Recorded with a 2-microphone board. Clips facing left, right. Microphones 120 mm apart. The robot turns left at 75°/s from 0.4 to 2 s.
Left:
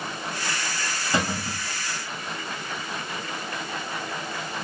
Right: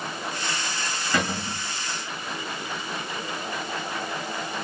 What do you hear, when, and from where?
1.1 s a cupboard door: 160° left, 1.6 m; by 1.6 s 125° left, 1.6 m